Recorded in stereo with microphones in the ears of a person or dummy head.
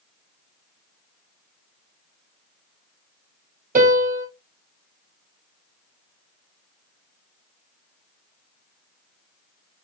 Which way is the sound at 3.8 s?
45° right (ahead or behind).